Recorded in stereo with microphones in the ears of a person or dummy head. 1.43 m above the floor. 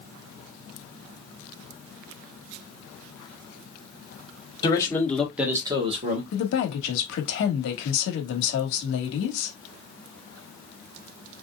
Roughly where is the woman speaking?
Left.